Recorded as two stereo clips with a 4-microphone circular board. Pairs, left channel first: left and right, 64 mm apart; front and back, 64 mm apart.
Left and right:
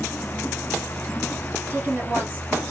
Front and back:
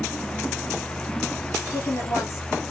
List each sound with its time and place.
1.7 s a woman speaking: 30° right, 4 m